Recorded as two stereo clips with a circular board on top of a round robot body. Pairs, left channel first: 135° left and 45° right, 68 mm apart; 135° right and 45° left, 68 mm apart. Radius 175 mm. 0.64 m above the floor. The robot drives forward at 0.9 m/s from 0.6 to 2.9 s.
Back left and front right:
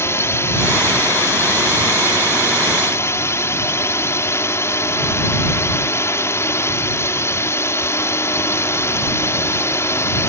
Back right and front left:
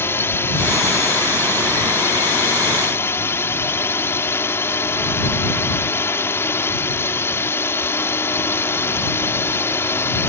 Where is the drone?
Straight behind.